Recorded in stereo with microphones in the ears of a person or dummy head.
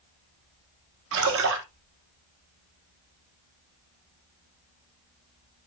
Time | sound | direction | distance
1.1 | a splash | 70° right (ahead or behind) | 2.0 m